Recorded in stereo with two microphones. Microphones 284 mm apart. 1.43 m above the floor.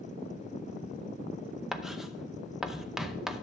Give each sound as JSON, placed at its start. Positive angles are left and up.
{"t": 1.7, "sound": "writing", "side_deg": 0, "distance_m": 0.7}